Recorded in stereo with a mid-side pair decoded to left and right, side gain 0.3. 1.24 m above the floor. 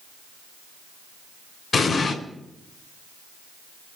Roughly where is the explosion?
Left.